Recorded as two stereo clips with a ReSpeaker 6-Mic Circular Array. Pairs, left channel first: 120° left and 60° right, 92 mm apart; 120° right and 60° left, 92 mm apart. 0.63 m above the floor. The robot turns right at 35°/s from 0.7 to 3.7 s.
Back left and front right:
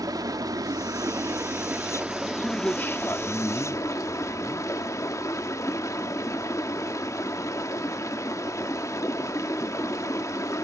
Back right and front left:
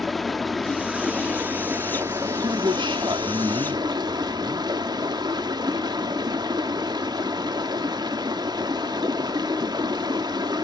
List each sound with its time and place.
0.0 s running water: 30° right, 1.0 m; by 10.7 s 75° left, 1.0 m
2.4 s a man speaking: 40° left, 0.9 m; by 4.7 s 85° left, 0.9 m